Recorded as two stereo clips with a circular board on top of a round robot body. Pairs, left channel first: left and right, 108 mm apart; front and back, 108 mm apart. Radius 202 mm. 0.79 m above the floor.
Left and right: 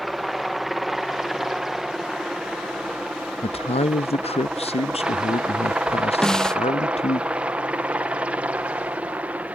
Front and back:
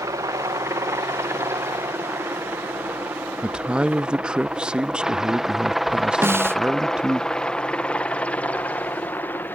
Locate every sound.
0.0 s a helicopter: straight behind; by 9.6 s 35° right
3.4 s a man speaking: 100° left
6.2 s a snare drum: 165° left